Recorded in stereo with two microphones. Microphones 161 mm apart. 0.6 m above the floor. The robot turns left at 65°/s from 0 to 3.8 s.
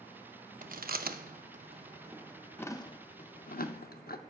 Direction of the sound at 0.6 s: 60° right (ahead or behind).